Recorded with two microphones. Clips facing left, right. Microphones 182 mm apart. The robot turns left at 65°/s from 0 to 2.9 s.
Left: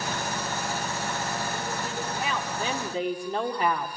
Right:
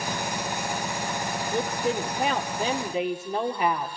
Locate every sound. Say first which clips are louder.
1.5 s a woman speaking: right 6 dB; 85° right, 1.9 m; by 3.9 s 175° right, 1.9 m